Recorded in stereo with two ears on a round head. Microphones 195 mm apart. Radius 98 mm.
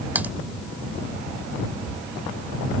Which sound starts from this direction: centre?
Typing on a keyboard, at 0.1 s.